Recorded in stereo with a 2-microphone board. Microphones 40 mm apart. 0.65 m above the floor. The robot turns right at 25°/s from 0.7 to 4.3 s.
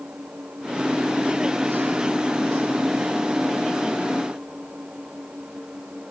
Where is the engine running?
125° right; by 6.1 s 35° right.